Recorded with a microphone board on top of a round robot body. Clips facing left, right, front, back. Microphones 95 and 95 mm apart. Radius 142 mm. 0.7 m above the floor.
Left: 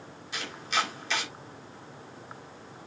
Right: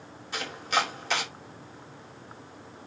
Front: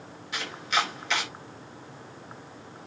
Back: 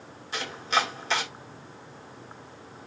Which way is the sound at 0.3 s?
125° right.